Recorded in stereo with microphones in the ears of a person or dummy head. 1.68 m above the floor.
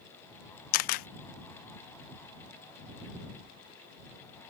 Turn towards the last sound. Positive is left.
turn(degrees=55)  # may be behind; listen again after turning